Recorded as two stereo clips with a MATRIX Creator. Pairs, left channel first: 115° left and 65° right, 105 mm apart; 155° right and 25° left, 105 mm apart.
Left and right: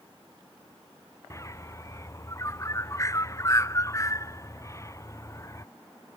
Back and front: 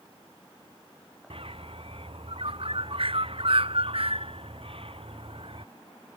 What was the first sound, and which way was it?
A bird, 50° left.